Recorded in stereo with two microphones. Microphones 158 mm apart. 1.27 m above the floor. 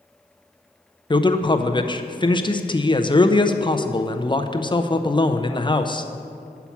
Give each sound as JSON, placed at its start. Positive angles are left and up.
{"t": 1.1, "sound": "a man speaking", "side_deg": 25, "distance_m": 0.5}